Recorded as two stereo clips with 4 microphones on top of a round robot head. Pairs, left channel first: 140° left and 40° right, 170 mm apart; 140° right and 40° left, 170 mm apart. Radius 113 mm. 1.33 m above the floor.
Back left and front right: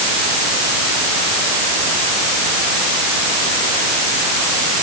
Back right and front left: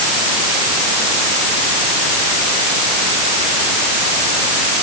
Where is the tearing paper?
No tearing paper in this recording.